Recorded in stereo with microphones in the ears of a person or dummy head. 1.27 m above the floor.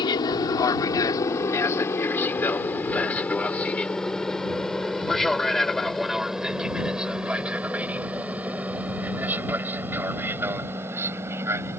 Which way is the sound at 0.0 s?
30° left (ahead or behind).